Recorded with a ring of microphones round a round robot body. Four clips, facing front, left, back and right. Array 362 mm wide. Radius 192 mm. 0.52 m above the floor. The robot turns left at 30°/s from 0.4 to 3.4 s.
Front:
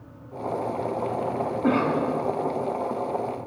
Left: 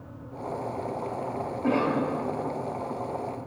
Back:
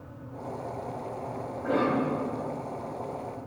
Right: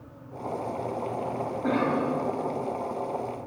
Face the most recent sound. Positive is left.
turn(degrees=-45)